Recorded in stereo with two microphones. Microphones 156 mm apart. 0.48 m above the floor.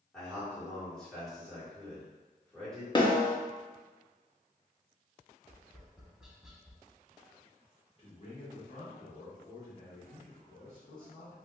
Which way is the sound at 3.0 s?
30° left (ahead or behind).